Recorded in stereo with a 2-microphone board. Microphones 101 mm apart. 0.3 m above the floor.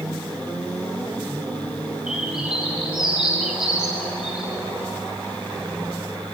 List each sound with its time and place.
2.1 s a bird: 10° right (ahead or behind), 7.5 m